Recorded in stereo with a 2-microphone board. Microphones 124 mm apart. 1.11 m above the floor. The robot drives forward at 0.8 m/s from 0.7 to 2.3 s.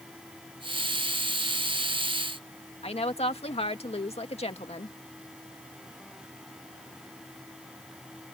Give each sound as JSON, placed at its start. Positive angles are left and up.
{"t": 2.8, "sound": "a woman speaking", "side_deg": 50}